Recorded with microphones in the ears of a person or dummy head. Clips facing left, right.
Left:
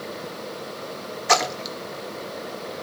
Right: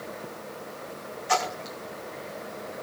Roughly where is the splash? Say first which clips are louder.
Left 4 dB; left.